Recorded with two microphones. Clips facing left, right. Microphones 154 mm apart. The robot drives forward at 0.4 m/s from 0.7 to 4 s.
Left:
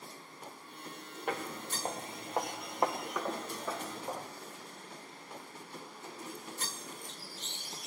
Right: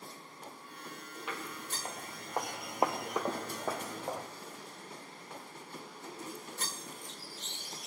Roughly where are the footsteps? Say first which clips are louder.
Left 6 dB; left.